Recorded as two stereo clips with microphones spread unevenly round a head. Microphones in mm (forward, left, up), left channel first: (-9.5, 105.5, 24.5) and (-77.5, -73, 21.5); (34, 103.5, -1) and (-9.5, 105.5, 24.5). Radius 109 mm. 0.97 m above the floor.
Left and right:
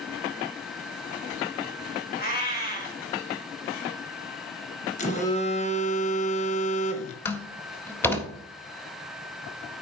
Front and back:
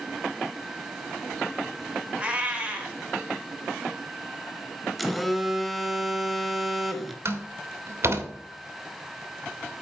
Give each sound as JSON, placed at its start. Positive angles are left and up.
{"t": 2.2, "sound": "a cat meowing", "azimuth_deg": 115, "distance_m": 2.5}
{"t": 5.0, "sound": "a phone buzzing", "azimuth_deg": 40, "distance_m": 1.0}
{"t": 7.2, "sound": "a door slam", "azimuth_deg": 150, "distance_m": 1.6}